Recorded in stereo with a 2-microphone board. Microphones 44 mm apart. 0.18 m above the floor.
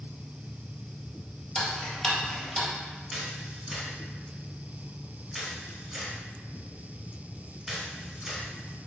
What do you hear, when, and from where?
1.6 s ticking: 5° left (ahead or behind), 1.0 m
3.1 s a camera shutter: 5° right (ahead or behind), 0.9 m